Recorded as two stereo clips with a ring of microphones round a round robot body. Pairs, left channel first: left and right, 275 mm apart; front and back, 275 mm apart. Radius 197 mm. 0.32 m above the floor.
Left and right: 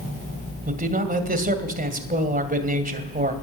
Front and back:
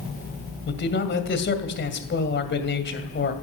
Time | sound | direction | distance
0.7 | a man speaking | 40° right | 2.5 m